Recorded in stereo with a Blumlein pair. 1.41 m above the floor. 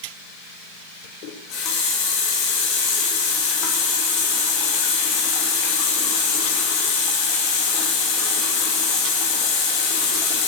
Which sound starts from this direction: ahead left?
A running tap, at 1.2 s.